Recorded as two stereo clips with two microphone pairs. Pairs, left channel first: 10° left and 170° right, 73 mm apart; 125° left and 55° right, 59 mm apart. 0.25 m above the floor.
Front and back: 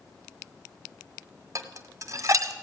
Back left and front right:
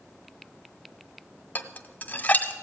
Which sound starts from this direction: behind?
Dishes clattering, at 1.6 s.